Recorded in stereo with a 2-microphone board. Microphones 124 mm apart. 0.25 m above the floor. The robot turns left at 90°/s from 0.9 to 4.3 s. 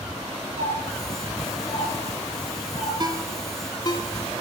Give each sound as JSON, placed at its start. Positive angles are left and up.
{"t": 0.6, "sound": "a doorbell", "side_deg": -65, "distance_m": 4.5}
{"t": 3.0, "sound": "a ringtone", "side_deg": -35, "distance_m": 0.9}